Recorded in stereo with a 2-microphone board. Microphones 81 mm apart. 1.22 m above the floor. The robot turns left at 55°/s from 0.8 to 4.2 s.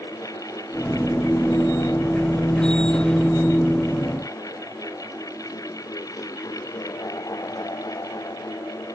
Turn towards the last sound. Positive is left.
No sound to turn to.